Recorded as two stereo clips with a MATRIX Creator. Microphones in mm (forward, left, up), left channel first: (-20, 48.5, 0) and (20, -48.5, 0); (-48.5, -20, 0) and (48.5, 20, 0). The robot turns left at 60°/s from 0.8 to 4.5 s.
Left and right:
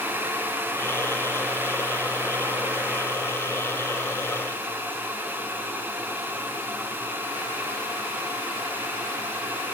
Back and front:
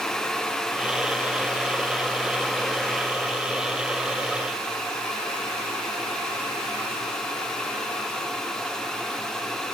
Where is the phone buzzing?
No phone buzzing in this recording.